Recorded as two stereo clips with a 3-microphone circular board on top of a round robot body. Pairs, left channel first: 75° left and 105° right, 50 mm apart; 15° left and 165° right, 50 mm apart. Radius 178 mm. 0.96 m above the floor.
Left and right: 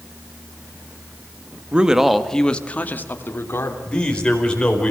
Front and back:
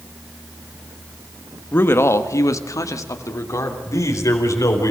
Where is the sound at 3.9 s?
5° left, 4.5 m.